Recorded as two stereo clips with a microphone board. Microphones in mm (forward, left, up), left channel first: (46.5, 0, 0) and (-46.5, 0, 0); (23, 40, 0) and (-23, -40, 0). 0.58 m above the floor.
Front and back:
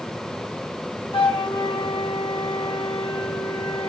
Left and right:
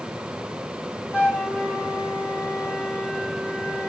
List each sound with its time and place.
1.1 s a flute: 5° right, 2.0 m